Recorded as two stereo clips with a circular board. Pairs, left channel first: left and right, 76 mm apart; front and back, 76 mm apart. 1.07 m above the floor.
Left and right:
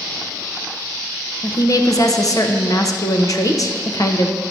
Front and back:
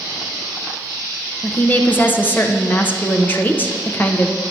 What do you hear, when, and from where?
1.4 s a woman speaking: 60° left, 1.0 m